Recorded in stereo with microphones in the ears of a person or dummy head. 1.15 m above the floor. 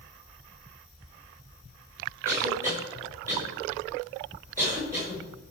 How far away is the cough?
About 6 m.